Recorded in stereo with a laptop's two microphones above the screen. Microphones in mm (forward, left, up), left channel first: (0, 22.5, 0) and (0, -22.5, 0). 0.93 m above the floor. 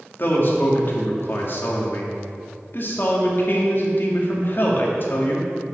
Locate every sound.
0.2 s a man speaking: 50° left (ahead or behind), 2 m